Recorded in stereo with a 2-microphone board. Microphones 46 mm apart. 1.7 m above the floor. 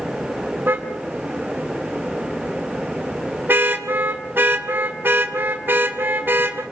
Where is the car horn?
45° right (ahead or behind), 3 m.